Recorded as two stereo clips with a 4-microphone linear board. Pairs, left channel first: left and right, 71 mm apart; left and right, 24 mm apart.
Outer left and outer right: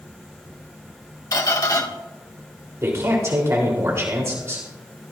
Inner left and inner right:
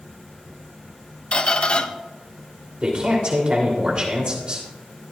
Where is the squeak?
50° left (ahead or behind), 1.0 m.